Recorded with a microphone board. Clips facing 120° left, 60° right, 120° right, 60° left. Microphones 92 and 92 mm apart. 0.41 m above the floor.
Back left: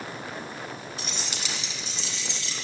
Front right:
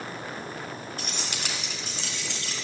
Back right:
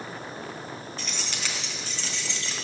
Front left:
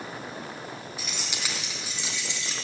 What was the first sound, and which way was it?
Keys jangling, 20° right.